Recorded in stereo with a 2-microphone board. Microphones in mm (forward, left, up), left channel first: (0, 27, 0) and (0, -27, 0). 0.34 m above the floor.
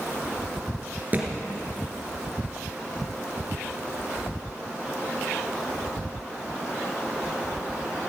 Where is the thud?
35° right (ahead or behind), 2.5 m.